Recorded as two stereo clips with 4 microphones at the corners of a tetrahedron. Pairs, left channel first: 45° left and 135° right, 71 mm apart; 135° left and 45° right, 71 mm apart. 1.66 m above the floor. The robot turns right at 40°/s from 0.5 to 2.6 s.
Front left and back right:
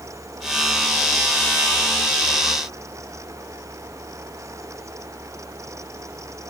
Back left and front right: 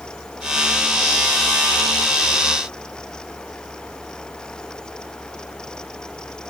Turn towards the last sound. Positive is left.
No sound to turn to.